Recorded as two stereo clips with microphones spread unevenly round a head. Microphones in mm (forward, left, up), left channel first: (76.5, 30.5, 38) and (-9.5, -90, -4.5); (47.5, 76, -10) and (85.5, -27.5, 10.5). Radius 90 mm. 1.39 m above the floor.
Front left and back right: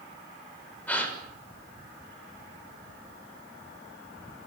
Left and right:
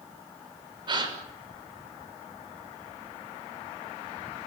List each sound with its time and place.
0.9 s a gasp: 25° right, 6.5 m